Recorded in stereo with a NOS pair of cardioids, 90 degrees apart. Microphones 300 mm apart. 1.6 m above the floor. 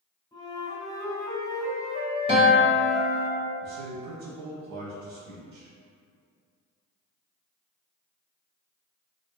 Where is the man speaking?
65° right, 1.0 m.